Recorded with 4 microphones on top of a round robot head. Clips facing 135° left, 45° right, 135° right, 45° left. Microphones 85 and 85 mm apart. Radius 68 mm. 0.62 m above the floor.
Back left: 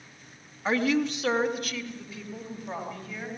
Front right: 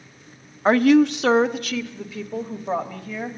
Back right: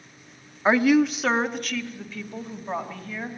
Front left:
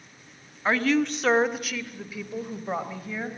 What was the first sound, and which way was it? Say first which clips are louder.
A woman speaking: front right 10 dB, back right 5 dB; 65° right.